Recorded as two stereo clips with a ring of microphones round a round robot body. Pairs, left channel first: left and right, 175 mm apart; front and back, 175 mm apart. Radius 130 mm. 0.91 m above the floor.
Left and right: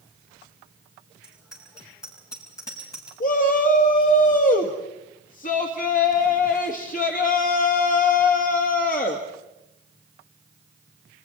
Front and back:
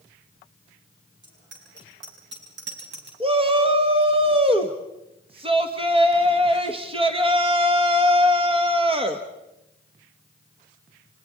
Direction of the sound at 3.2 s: 125° left.